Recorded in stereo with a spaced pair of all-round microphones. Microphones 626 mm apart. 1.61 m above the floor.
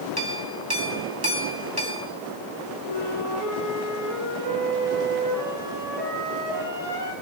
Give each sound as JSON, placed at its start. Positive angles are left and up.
{"t": 0.2, "sound": "a clink", "side_deg": -35, "distance_m": 4.0}
{"t": 2.9, "sound": "a flute", "side_deg": -60, "distance_m": 9.5}